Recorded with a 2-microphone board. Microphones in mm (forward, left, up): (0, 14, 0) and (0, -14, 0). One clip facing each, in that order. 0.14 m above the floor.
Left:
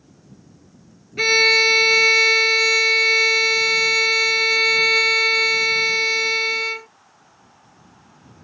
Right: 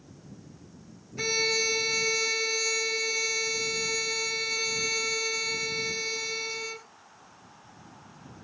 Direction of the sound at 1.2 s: 55° left (ahead or behind).